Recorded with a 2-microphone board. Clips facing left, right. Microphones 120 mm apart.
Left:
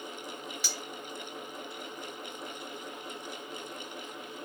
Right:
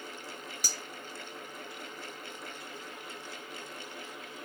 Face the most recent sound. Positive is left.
turn(degrees=-40)  # may be behind; listen again after turning